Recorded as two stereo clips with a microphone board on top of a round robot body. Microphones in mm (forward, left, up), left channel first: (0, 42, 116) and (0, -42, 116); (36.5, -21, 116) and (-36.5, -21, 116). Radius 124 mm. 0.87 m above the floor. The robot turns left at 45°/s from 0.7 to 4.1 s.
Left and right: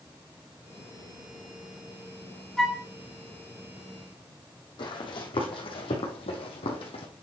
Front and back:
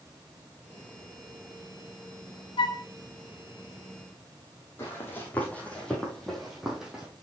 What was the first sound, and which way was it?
A flute, 5° left.